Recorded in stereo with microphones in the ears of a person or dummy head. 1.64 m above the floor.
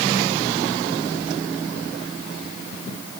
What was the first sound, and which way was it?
Only background noise.